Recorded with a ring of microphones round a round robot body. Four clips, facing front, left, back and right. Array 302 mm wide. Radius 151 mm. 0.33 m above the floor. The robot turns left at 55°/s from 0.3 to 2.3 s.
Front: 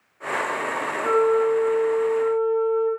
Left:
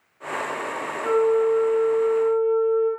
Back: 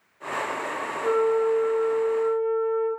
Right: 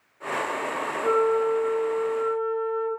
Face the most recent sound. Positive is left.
turn(degrees=-45)